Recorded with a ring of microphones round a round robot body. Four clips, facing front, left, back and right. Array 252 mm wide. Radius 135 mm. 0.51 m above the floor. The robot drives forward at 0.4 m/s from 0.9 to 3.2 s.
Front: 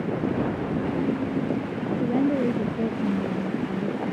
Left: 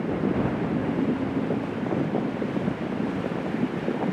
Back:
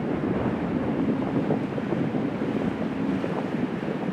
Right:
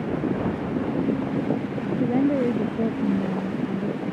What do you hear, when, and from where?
1.9 s a woman speaking: 65° right